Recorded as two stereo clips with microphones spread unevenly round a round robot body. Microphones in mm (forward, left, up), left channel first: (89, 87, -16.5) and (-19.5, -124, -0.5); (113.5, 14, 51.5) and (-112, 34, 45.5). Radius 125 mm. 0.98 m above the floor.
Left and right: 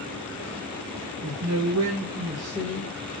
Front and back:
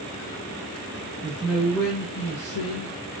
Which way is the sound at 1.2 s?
110° right.